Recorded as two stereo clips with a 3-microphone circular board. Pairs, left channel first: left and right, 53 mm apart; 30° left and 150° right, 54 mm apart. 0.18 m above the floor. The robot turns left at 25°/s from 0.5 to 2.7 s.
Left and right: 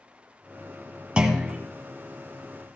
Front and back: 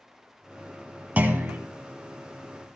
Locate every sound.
1.2 s a clunk: 140° right, 1.3 m; by 1.6 s 150° right, 1.3 m